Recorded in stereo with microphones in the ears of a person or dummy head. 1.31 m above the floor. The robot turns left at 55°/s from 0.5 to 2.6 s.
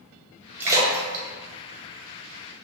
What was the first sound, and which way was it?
A splash, 15° right (ahead or behind).